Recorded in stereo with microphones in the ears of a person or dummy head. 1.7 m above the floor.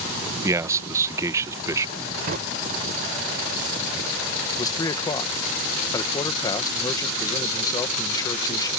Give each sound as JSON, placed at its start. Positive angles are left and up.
{"t": 0.4, "sound": "a man speaking", "side_deg": -15}
{"t": 2.3, "sound": "a drawer", "side_deg": -35}
{"t": 4.6, "sound": "a man speaking", "side_deg": 20}